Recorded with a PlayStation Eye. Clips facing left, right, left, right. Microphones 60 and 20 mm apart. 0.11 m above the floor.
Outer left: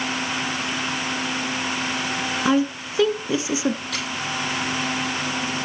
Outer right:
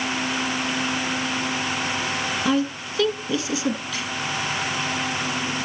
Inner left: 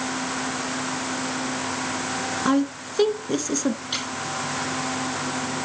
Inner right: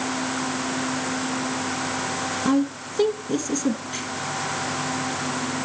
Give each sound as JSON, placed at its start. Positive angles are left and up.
{"t": 2.5, "sound": "a woman speaking", "side_deg": 20, "distance_m": 1.1}
{"t": 3.9, "sound": "a squeak", "side_deg": 60, "distance_m": 2.5}